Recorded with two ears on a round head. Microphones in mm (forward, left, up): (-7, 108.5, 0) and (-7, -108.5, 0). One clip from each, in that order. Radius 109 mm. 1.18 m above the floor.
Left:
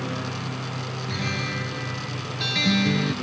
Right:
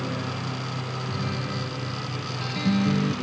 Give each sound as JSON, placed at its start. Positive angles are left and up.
{"t": 0.0, "sound": "a lawn mower", "side_deg": 5}
{"t": 1.1, "sound": "a guitar", "side_deg": 65}